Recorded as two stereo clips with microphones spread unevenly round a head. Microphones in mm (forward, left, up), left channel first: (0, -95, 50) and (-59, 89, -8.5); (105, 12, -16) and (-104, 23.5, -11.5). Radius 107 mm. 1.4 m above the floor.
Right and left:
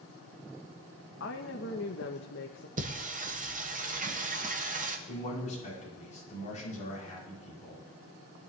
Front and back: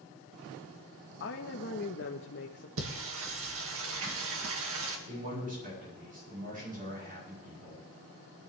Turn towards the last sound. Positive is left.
turn(degrees=-130)